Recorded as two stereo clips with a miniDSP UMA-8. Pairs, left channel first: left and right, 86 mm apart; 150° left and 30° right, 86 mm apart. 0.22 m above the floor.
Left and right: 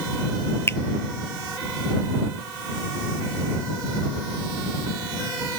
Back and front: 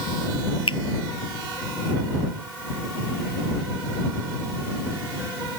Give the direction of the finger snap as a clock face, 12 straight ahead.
7 o'clock.